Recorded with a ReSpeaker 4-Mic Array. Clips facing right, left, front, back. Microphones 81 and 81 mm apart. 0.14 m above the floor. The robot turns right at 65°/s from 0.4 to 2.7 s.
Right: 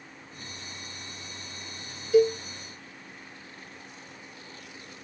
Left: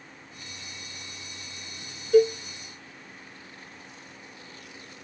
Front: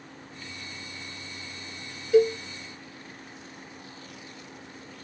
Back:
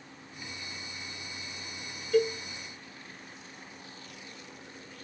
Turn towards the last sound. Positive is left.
turn(degrees=100)